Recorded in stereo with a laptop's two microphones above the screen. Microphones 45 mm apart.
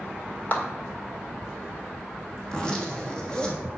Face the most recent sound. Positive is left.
turn(degrees=20)  # may be behind; listen again after turning